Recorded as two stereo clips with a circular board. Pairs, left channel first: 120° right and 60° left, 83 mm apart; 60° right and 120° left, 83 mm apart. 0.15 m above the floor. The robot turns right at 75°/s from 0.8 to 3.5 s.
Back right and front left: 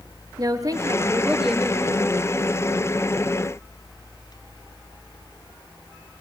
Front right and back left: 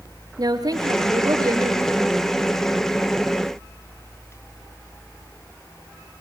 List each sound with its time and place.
0.4 s a woman speaking: 95° left, 2.5 m; by 1.9 s straight behind, 2.5 m